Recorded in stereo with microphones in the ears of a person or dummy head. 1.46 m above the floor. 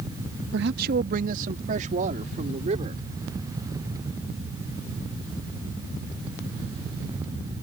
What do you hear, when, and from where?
0.5 s a man speaking: 60° right (ahead or behind); by 3.0 s 35° right (ahead or behind)